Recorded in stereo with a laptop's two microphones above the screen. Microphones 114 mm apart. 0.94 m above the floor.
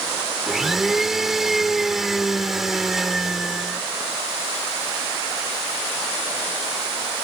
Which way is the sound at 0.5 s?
5° right (ahead or behind).